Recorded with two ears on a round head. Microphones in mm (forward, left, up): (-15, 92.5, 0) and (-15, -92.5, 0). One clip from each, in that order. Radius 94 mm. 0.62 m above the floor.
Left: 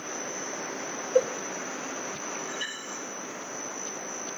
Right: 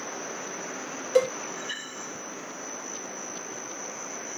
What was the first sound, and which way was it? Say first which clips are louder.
A cowbell: right 1 dB; 65° right (ahead or behind).